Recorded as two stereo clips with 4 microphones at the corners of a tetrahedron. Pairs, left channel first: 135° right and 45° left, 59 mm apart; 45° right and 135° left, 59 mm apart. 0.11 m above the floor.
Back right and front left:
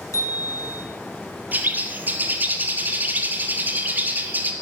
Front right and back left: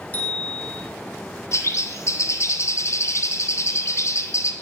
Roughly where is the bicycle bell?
Right.